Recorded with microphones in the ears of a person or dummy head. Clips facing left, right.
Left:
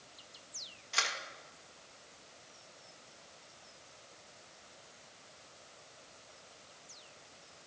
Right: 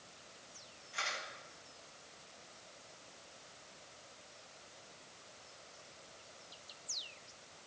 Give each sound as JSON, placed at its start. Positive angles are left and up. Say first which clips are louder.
{"t": 0.9, "sound": "a camera shutter", "louder": "left 3 dB", "side_deg": 85, "distance_m": 1.5}